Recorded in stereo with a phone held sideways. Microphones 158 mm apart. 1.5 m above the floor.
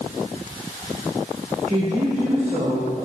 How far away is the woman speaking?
About 4.5 m.